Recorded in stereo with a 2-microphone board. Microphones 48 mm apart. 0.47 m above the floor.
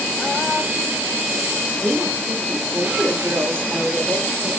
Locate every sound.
1.8 s a woman speaking: 45° right (ahead or behind), 1.1 m